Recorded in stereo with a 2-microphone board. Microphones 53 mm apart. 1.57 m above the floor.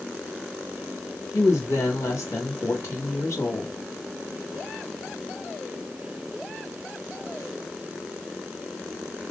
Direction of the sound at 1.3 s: 80° left.